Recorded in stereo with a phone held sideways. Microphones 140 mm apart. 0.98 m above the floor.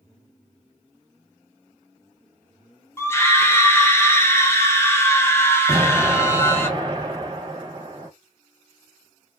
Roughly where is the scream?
Centre.